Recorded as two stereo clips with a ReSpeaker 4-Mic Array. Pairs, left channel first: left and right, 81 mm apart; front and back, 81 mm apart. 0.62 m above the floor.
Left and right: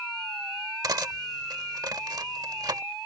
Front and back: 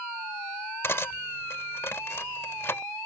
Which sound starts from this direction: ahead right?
Cutlery clinking, at 0.8 s.